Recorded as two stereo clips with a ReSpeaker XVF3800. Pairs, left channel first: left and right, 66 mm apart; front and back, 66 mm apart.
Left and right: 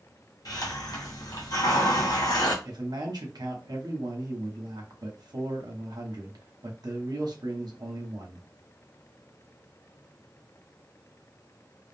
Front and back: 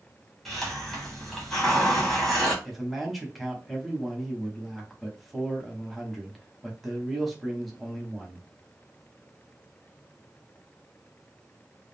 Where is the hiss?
85° left, 1.0 m.